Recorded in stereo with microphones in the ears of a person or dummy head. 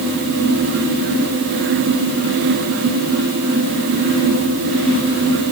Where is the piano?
I don't hear a piano.